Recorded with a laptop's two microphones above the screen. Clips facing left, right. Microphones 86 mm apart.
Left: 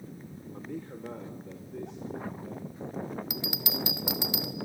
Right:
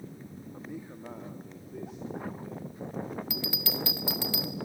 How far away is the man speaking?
About 1.2 m.